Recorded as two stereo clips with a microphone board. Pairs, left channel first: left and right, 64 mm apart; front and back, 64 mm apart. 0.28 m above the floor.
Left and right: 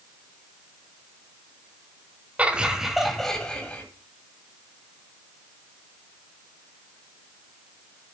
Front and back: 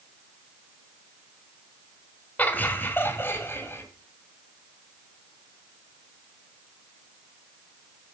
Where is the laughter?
40° right, 1.7 m; by 3.8 s 30° left, 2.0 m.